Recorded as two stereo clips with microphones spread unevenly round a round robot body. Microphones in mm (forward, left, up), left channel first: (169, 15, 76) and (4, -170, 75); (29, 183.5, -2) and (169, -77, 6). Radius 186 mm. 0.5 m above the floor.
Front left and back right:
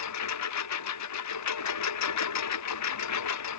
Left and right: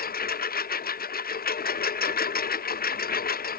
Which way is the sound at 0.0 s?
60° left.